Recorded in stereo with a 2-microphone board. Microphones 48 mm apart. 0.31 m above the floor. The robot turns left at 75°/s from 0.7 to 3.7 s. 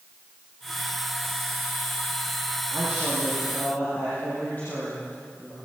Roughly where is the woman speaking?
Behind right.